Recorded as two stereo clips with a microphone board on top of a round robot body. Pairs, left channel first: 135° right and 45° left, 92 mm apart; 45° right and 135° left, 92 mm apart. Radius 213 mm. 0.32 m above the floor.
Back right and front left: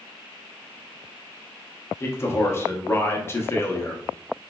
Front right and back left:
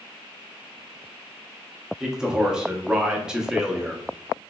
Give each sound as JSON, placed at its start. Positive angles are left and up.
{"t": 2.0, "sound": "a man speaking", "azimuth_deg": -150, "distance_m": 1.0}